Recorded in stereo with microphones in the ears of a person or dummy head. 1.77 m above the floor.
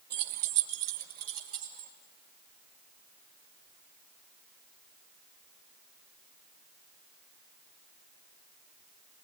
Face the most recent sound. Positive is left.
turn(degrees=-50)  # may be behind; listen again after turning